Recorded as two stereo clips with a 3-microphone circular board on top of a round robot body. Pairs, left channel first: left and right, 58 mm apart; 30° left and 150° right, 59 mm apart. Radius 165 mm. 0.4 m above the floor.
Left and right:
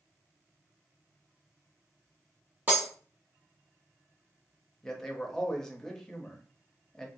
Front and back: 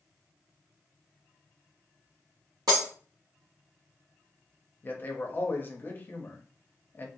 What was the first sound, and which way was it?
Breaking glass, 150° right.